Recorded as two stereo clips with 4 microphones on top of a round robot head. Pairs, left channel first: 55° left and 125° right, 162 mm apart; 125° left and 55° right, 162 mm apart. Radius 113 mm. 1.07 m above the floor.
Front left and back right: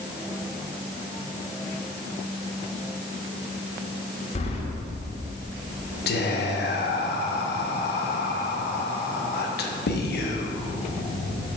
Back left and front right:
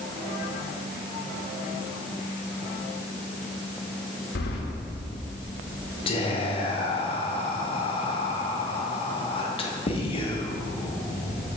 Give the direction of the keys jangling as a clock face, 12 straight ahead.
9 o'clock.